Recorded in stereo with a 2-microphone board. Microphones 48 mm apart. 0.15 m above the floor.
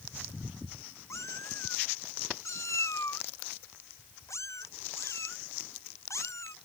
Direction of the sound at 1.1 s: 80° left.